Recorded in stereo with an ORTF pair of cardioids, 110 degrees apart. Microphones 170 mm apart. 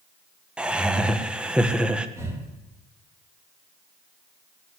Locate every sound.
0.6 s laughter: 5° right, 1.6 m
2.2 s breathing: 15° right, 3.5 m